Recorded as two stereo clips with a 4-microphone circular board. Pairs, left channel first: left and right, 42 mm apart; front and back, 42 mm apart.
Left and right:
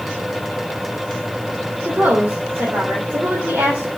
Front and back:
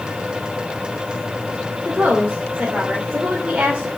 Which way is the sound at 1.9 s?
120° right.